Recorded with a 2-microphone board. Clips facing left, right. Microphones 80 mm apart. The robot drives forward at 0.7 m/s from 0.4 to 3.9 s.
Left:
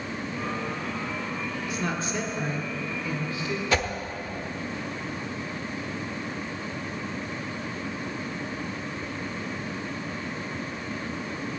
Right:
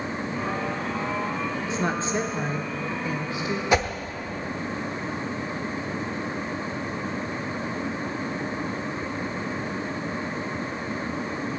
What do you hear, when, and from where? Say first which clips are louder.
1.7 s a woman speaking: right 4 dB; 30° right (ahead or behind), 1.1 m; by 3.6 s 20° right (ahead or behind), 1.7 m
3.7 s a whoosh: right 4 dB; 20° right (ahead or behind), 0.9 m